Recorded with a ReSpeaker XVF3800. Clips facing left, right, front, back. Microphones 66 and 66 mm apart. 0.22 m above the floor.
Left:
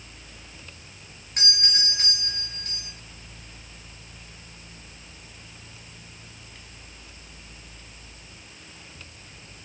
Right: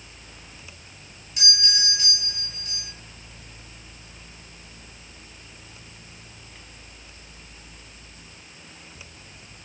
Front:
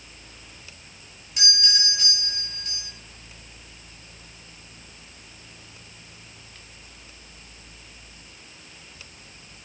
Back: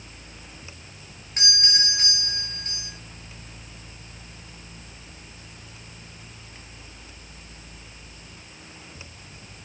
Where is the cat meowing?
I don't hear a cat meowing.